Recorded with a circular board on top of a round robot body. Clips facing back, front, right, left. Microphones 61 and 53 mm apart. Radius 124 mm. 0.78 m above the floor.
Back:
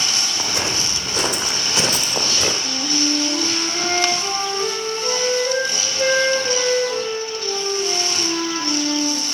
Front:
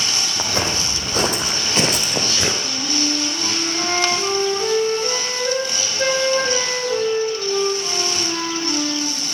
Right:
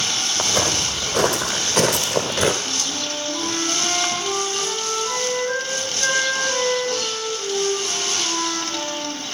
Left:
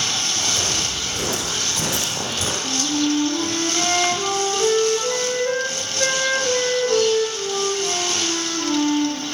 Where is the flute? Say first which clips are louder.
Back 1 dB, left 6 dB; 70° left, 6 m.